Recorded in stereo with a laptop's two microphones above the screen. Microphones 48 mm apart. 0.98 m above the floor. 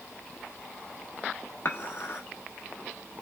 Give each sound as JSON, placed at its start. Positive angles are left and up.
{"t": 1.6, "sound": "dishes clattering", "side_deg": 55, "distance_m": 1.0}